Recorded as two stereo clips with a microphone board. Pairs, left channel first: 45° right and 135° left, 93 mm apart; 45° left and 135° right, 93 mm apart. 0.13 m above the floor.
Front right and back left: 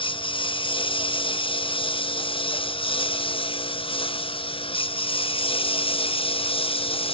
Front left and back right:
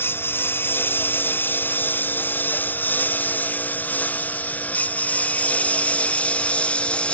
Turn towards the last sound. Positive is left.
turn(degrees=-30)